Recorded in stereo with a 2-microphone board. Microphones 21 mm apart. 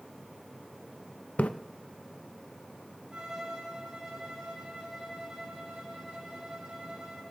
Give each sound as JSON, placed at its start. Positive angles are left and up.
{"t": 1.4, "sound": "a splash", "side_deg": 85, "distance_m": 0.6}
{"t": 3.1, "sound": "a violin", "side_deg": -55, "distance_m": 6.0}